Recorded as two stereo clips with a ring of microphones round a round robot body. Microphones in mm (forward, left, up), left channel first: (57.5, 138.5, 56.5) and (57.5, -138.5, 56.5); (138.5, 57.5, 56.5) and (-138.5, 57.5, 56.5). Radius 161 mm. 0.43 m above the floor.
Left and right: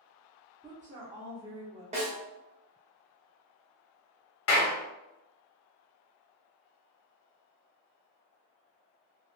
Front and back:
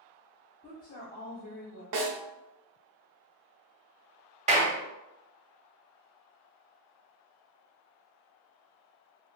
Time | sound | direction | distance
0.6 | a woman speaking | 25° right | 0.7 m
1.9 | a snare drum | 160° right | 0.8 m
4.5 | a clap | 120° left | 0.9 m